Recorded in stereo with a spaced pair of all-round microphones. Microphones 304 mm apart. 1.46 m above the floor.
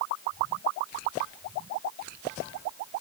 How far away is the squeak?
No squeak in this recording.